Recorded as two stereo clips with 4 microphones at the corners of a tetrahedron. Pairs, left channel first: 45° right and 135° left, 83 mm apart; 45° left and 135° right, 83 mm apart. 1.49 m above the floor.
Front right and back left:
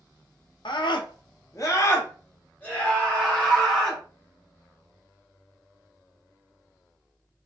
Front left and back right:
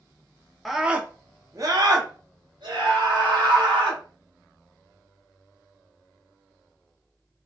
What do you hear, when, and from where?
0.7 s a scream: 45° right, 0.5 m; by 4.0 s 125° right, 1.7 m